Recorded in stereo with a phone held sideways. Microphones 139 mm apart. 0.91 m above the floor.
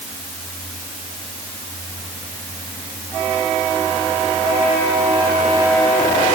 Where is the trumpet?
No trumpet in this recording.